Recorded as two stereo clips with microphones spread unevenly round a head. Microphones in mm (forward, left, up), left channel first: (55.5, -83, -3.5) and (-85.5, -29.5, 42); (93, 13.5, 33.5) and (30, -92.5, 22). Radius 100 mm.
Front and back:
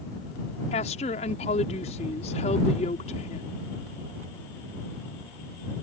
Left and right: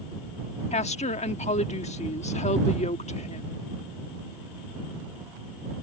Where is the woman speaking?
35° left.